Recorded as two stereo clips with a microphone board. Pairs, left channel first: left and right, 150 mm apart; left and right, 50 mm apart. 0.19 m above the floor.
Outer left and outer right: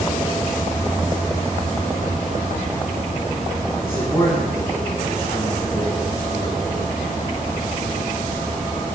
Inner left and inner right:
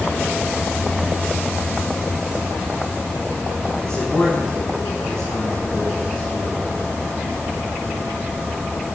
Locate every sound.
3.8 s a man speaking: 15° left (ahead or behind), 4.5 m